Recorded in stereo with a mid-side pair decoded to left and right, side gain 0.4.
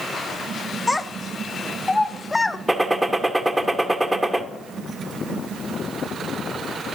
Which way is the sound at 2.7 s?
10° right.